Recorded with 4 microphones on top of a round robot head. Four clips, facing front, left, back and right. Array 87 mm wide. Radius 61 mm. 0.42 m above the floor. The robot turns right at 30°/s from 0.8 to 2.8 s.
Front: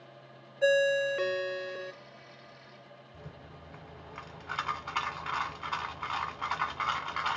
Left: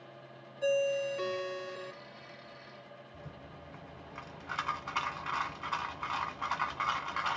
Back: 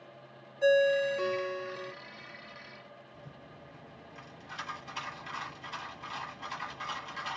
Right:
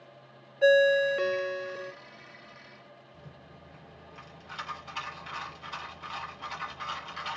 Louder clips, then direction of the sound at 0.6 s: Right 9 dB, back 1 dB; 65° right.